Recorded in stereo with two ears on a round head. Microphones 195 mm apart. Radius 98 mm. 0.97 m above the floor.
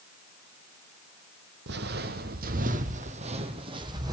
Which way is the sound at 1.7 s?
55° right (ahead or behind).